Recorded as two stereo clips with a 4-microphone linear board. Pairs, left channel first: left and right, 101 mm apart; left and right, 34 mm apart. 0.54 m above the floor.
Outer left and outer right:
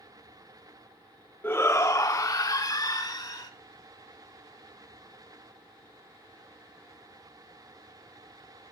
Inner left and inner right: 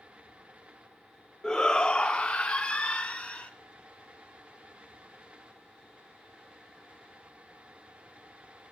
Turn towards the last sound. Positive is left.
turn(degrees=40)  # may be behind; listen again after turning